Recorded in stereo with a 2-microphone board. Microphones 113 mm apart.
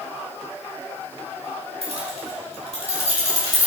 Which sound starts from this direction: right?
Keys jangling, at 1.8 s.